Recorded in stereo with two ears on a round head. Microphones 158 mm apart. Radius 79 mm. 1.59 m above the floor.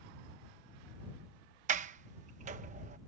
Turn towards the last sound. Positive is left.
turn(degrees=-45)  # may be behind; listen again after turning